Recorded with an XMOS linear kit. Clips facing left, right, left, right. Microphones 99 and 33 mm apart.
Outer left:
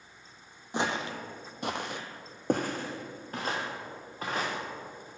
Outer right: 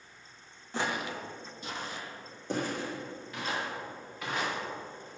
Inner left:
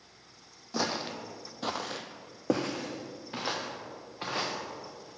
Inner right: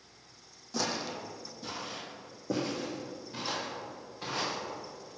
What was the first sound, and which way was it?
Footsteps, 20° left (ahead or behind).